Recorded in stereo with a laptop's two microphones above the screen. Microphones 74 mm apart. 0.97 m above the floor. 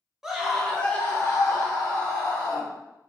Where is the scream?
10° right (ahead or behind), 0.8 m; by 2.7 s 70° left (ahead or behind), 1.1 m.